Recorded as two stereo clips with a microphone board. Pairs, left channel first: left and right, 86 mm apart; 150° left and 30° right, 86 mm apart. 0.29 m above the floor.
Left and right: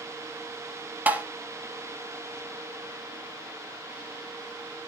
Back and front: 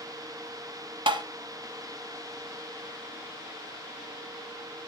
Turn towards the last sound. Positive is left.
turn(degrees=-20)